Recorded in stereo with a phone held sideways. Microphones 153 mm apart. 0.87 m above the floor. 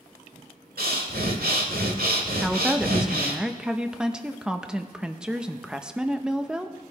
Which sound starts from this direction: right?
Breathing, at 0.8 s.